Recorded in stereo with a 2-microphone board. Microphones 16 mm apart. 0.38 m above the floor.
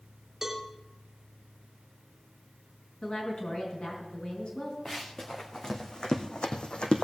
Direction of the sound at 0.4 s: 20° right (ahead or behind).